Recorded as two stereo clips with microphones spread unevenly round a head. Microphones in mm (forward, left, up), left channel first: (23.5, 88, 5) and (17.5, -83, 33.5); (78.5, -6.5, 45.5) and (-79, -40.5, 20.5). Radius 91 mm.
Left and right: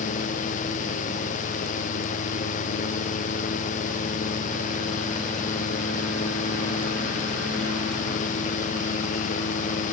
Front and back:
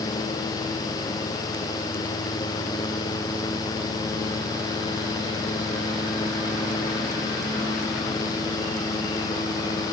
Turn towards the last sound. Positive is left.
No sound to turn to.